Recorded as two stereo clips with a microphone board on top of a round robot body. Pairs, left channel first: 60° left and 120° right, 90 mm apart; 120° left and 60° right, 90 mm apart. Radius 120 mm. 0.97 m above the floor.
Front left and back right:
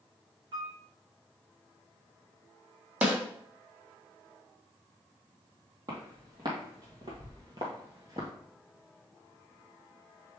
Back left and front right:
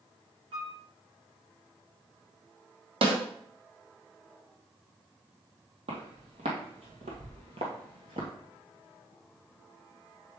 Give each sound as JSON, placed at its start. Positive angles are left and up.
{"t": 0.5, "sound": "a piano", "azimuth_deg": -80, "distance_m": 4.0}
{"t": 3.0, "sound": "a snare drum", "azimuth_deg": -45, "distance_m": 1.9}
{"t": 5.9, "sound": "footsteps", "azimuth_deg": -70, "distance_m": 2.0}